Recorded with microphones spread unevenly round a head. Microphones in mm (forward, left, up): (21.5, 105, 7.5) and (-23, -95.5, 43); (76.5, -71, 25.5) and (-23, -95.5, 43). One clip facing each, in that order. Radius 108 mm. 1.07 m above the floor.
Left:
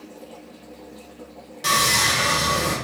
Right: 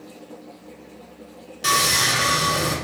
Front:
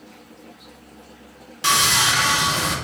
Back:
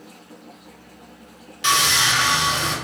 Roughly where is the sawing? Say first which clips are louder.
Even, even; ahead.